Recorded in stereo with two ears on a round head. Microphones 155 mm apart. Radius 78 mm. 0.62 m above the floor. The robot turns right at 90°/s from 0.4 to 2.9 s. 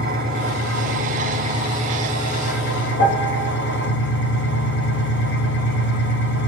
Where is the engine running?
130° right, 6 m; by 6.5 s 95° left, 6 m.